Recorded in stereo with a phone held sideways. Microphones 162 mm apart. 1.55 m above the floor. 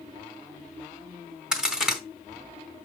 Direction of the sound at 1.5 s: 5° right (ahead or behind).